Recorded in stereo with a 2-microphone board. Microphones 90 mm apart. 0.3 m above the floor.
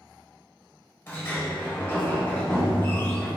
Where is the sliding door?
25° left (ahead or behind), 1.3 m.